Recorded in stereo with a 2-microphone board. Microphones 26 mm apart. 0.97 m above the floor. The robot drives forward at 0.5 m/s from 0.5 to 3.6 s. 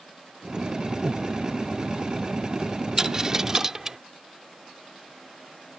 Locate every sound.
1.0 s breathing: 50° right (ahead or behind)
3.0 s a dropped coin: 20° right (ahead or behind); by 4.0 s 15° right (ahead or behind)